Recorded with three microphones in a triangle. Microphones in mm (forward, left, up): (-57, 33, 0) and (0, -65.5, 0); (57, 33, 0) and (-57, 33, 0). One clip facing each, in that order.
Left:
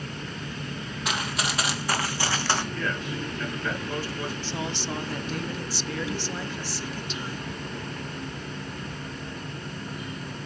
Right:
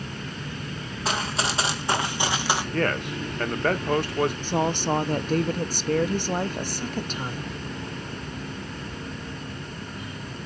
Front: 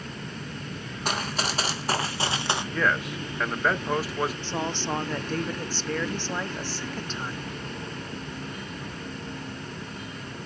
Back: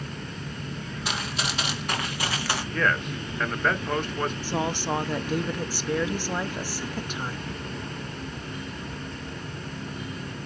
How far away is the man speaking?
About 1.2 m.